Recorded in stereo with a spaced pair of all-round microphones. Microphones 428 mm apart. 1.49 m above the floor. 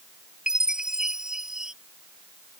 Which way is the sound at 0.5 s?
Centre (ahead or behind).